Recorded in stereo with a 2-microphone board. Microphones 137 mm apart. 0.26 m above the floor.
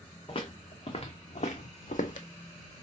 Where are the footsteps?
40° left (ahead or behind), 1.5 m; by 2.3 s 70° left (ahead or behind), 0.7 m.